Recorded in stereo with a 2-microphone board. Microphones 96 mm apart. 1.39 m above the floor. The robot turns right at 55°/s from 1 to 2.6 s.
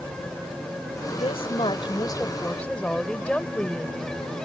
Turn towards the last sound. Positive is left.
turn(degrees=170)